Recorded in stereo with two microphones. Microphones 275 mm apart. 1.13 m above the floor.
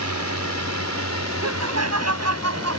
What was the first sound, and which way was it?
A drone, 80° left.